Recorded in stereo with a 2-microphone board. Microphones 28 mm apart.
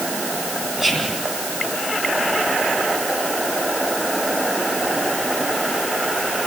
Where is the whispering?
10° right (ahead or behind), 3 m.